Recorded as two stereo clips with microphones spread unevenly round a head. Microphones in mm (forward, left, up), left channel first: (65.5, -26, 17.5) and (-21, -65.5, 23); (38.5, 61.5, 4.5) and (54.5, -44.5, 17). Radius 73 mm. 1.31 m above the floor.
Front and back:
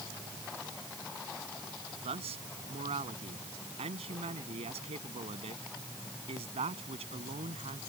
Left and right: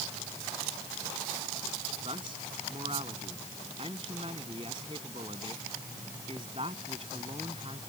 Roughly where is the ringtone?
No ringtone in this recording.